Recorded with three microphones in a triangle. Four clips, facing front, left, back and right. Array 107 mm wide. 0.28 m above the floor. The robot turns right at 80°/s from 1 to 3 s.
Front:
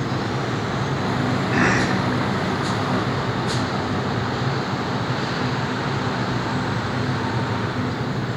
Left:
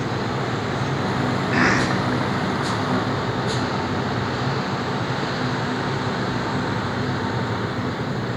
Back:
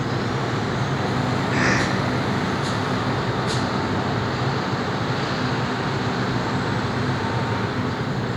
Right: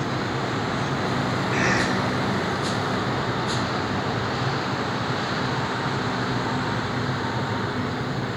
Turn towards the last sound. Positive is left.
turn(degrees=180)